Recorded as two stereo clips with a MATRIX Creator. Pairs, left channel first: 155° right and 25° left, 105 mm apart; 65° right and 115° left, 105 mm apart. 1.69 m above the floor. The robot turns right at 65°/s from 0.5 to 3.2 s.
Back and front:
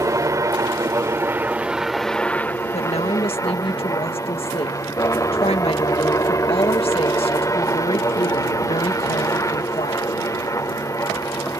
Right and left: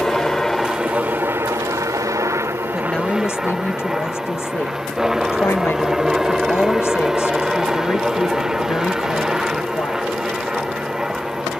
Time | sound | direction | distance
0.0 | a helicopter | 15° left | ?
2.7 | a woman speaking | 165° right | ?